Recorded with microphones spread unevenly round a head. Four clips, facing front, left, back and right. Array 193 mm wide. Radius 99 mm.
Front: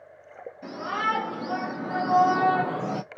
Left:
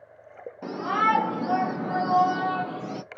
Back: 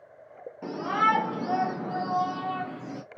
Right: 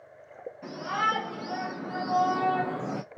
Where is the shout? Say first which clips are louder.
Left 5 dB, back 3 dB; 135° left, 1.2 m; by 3.0 s 25° right, 0.7 m.